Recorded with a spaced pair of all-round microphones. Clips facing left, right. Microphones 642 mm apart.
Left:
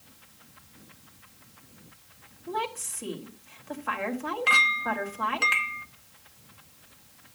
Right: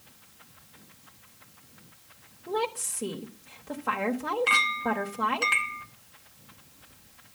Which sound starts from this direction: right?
A woman speaking, at 2.5 s.